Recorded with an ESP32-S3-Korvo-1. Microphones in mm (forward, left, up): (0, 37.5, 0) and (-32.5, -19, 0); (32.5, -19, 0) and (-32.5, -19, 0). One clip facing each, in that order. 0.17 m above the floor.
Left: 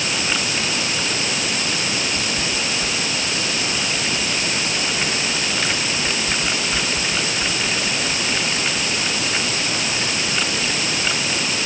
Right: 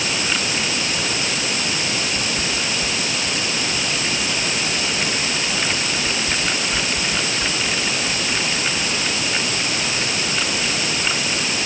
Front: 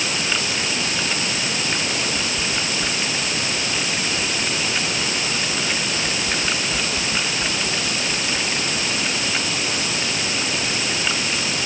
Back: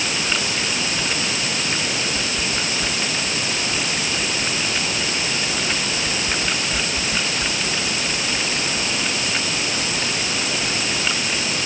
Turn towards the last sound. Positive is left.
No sound to turn to.